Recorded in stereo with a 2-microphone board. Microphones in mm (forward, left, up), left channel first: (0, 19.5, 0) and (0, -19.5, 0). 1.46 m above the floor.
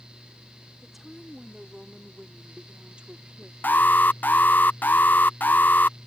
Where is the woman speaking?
5° right (ahead or behind); by 3.5 s 35° right (ahead or behind).